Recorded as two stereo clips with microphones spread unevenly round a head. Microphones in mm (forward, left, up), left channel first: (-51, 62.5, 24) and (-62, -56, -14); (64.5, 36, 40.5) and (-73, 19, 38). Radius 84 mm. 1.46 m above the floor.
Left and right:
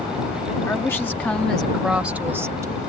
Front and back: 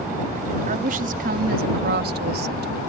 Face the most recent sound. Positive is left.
turn(degrees=-155)